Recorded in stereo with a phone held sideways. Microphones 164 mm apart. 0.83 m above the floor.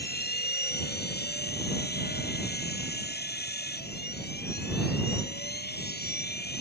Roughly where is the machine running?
Left.